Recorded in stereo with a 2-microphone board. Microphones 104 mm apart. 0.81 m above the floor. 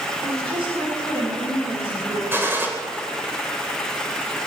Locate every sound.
0.2 s a woman speaking: 60° right (ahead or behind), 3 m
2.3 s a gunshot: 20° right (ahead or behind), 1.8 m